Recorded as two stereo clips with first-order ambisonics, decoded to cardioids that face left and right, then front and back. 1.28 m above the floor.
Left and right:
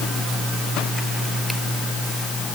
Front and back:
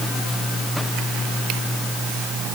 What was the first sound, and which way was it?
Only background noise.